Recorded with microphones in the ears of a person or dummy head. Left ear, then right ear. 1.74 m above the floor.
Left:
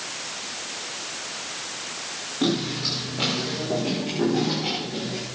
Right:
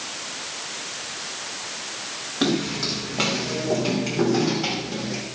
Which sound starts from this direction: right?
Footsteps, at 2.4 s.